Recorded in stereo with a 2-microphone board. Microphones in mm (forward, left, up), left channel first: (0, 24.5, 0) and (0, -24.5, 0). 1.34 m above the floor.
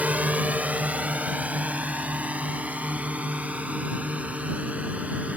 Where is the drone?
30° right (ahead or behind).